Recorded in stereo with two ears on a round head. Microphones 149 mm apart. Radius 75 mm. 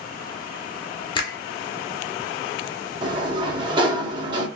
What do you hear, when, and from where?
1.1 s a finger snap: 30° left (ahead or behind), 1.3 m
3.0 s a sliding door: 30° right (ahead or behind), 0.9 m